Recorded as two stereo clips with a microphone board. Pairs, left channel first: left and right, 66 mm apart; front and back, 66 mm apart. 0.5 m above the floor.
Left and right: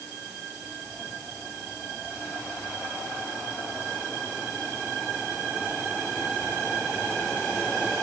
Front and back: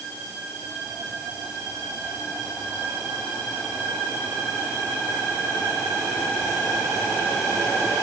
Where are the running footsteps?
No running footsteps in this recording.